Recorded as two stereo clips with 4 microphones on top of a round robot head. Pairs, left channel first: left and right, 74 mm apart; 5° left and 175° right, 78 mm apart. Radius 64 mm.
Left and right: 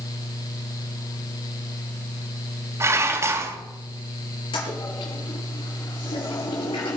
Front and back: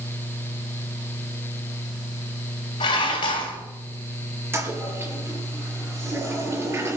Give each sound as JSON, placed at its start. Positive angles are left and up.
{"t": 2.8, "sound": "dishes clattering", "azimuth_deg": -40, "distance_m": 2.5}
{"t": 4.5, "sound": "a toilet flushing", "azimuth_deg": 125, "distance_m": 5.0}